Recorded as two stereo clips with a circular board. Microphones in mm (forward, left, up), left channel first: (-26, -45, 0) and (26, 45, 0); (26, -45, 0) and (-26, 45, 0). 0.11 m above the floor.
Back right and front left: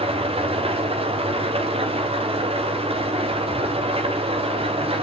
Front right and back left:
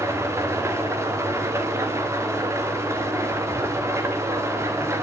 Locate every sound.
0.0 s an engine running: 60° left, 4.5 m